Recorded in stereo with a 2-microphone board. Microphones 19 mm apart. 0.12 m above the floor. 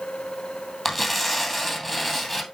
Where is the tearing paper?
5° left (ahead or behind), 2 m.